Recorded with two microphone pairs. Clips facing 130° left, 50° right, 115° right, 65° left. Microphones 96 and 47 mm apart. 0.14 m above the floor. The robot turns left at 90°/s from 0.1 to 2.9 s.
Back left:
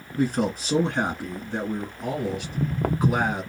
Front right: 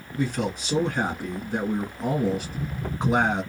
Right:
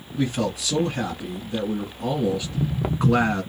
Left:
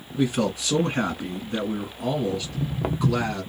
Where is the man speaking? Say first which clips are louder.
Back left 3 dB, left 1 dB; 155° left, 1.6 m; by 3.4 s 95° right, 1.6 m.